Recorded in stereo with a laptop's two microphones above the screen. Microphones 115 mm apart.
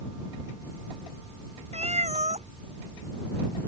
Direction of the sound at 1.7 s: 70° right (ahead or behind).